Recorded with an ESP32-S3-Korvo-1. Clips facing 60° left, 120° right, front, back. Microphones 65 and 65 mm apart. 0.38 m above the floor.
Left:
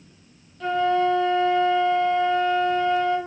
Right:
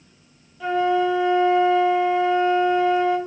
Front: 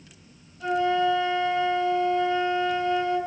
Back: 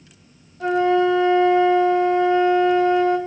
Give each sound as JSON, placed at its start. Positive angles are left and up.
{"t": 0.6, "sound": "a flute", "azimuth_deg": 160, "distance_m": 1.7}